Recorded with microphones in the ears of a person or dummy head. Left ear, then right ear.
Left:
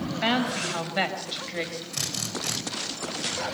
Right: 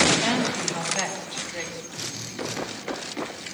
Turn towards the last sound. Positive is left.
turn(degrees=70)  # may be behind; listen again after turning